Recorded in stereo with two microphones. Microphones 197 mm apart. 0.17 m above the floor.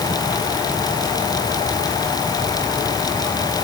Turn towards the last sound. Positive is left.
No sound to turn to.